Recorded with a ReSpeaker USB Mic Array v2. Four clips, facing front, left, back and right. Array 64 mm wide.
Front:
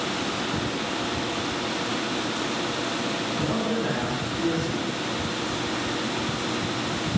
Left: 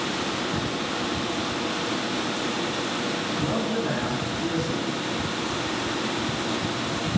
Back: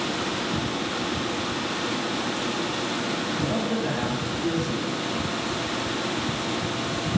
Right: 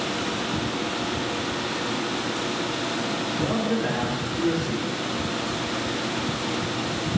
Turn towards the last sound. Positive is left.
turn(degrees=-75)